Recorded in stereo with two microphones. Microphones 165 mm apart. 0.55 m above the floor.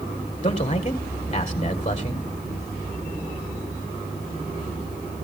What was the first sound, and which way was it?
A man speaking, 35° left (ahead or behind).